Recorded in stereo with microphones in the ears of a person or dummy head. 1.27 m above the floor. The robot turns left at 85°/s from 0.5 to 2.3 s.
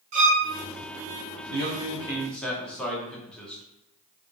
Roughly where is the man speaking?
Right.